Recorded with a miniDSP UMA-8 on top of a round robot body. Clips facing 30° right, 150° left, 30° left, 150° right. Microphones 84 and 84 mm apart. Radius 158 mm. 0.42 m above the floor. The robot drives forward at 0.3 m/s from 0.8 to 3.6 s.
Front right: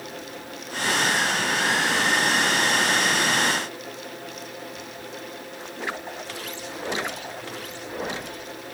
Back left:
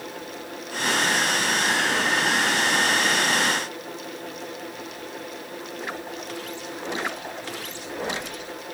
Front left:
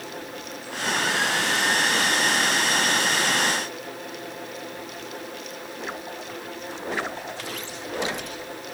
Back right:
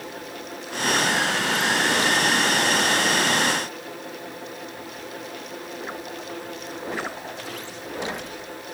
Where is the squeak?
No squeak in this recording.